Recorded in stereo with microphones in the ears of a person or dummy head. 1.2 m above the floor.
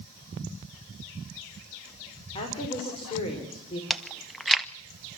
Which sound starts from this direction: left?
A woman speaking, at 2.4 s.